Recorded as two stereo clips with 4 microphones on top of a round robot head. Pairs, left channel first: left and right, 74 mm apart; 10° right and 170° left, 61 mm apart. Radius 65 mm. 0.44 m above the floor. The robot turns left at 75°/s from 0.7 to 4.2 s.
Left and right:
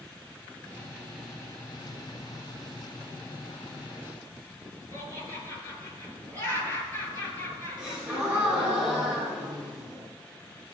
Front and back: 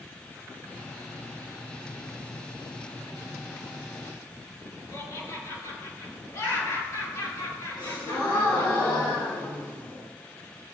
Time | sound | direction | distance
4.9 | laughter | 30° left | 6.5 m
7.8 | a gasp | 10° right | 5 m